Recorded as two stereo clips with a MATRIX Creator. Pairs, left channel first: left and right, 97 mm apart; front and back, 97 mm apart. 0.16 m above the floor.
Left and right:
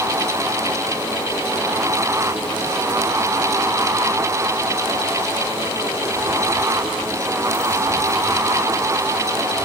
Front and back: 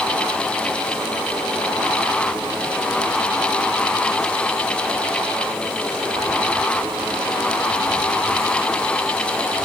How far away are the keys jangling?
I don't hear keys jangling.